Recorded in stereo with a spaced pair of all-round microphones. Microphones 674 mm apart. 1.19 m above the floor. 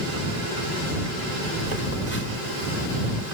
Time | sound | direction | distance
1.7 | a phone buzzing | 80° right | ?